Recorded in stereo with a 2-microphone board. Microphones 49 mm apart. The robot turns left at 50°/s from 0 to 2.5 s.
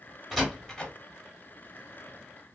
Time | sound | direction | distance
0.3 | a door slam | centre (ahead or behind) | 1.3 m